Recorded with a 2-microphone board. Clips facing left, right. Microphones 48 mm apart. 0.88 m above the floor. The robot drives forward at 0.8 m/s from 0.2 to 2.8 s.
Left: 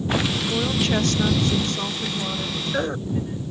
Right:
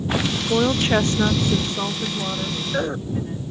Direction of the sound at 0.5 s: 30° right (ahead or behind).